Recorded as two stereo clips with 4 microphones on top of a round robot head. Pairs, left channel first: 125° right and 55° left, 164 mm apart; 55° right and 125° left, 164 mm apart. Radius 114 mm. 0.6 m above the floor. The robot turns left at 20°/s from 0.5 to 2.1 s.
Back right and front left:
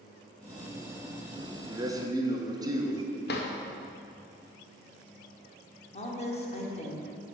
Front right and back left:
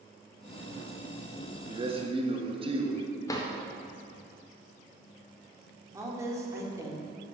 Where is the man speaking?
110° left, 1.1 m; by 3.0 s 105° left, 1.1 m.